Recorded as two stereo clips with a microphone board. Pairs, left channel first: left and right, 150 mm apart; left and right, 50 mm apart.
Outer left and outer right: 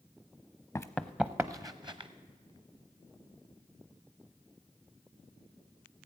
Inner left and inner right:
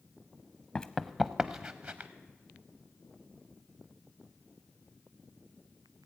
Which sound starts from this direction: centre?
Running footsteps, at 0.8 s.